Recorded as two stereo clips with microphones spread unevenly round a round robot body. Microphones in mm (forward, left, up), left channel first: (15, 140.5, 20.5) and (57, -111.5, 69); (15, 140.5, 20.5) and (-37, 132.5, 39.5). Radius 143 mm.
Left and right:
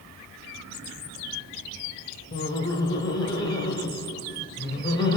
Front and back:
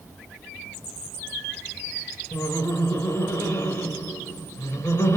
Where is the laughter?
25° left, 3.5 m.